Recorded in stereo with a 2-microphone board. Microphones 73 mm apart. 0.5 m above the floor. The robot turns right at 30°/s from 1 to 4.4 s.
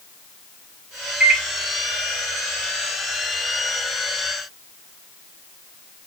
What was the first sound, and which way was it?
A microwave, 15° right (ahead or behind).